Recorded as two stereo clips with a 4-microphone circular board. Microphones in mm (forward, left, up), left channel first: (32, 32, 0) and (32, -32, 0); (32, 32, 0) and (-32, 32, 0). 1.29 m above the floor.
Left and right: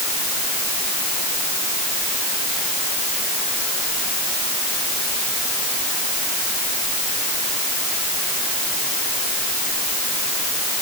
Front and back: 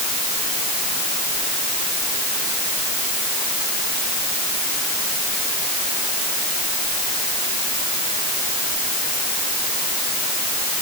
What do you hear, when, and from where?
Only background noise.